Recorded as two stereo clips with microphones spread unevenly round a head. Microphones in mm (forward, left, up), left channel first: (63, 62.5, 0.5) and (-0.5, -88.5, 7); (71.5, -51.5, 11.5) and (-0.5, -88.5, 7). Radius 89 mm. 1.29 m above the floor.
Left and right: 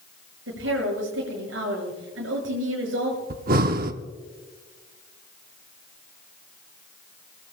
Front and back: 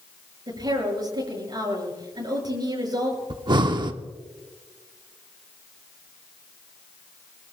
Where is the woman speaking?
120° right, 6.5 m.